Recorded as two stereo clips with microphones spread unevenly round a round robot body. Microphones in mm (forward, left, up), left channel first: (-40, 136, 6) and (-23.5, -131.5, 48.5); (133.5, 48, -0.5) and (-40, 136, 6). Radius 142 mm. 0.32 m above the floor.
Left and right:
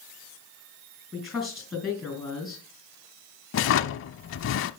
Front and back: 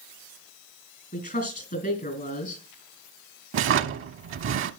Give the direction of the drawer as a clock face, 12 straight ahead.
7 o'clock.